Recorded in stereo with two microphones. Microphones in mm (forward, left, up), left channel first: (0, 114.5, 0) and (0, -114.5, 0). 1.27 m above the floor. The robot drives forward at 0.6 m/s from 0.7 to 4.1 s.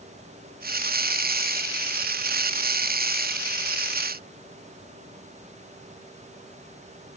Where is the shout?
I don't hear a shout.